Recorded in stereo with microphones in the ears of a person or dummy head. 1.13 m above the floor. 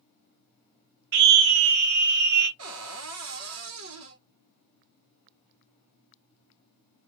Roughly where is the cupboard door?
Right.